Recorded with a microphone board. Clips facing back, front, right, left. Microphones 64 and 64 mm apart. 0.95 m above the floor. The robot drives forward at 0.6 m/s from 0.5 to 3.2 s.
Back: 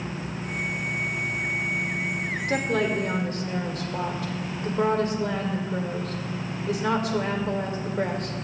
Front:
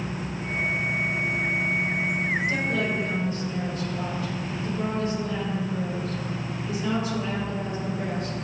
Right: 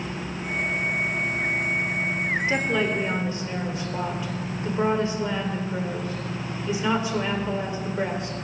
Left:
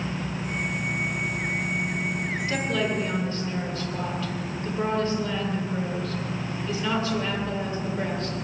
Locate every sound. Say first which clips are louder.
2.5 s a woman speaking: back 2 dB, even; 160° right, 3 m